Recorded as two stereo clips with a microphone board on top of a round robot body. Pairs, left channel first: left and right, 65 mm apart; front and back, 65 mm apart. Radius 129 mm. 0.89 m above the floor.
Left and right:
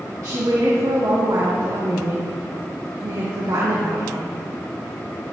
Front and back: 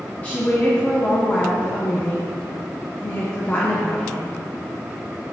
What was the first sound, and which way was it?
A woman speaking, 65° right.